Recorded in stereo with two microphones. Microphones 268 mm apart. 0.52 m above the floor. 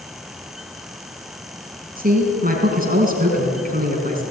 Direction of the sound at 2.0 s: 30° right (ahead or behind).